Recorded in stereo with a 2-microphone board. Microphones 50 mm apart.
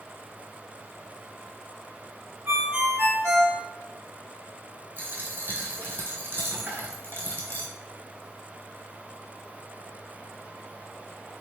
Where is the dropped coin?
45° right (ahead or behind), 1.3 m.